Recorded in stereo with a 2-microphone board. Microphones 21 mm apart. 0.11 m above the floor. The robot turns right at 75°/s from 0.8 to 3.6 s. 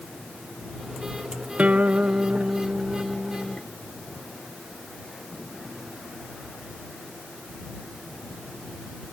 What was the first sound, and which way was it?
A guitar, 115° right.